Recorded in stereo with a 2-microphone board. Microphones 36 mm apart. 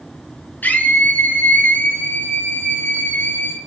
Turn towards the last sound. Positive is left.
turn(degrees=75)  # may be behind; listen again after turning